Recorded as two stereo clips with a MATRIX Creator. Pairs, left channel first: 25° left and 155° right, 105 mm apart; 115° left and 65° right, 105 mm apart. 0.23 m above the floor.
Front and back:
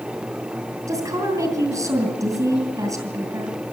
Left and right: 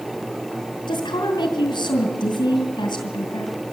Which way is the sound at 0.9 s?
150° left.